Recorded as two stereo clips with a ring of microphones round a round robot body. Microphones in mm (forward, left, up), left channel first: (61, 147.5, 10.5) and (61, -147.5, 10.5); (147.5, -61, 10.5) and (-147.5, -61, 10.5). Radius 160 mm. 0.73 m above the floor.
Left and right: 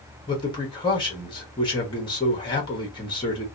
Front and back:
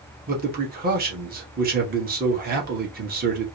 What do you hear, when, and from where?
0.3 s a man speaking: 150° left, 1.3 m